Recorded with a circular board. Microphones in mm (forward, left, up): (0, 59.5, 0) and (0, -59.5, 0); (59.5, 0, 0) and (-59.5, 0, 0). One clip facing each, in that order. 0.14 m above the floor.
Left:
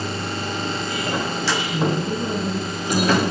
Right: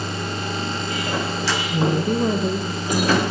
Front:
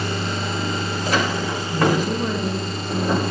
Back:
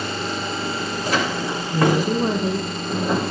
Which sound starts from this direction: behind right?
A woman speaking, at 1.7 s.